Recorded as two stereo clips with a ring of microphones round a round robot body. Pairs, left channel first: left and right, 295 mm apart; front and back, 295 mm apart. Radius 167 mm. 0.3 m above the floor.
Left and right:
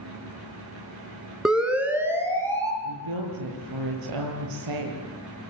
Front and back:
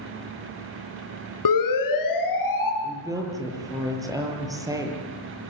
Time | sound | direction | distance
1.4 | a siren | straight ahead | 4.5 m
2.8 | a woman speaking | 100° right | 9 m